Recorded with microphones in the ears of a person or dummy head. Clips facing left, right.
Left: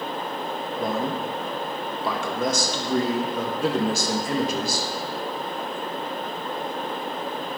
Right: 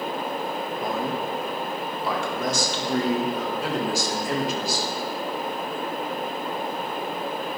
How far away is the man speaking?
About 1.9 m.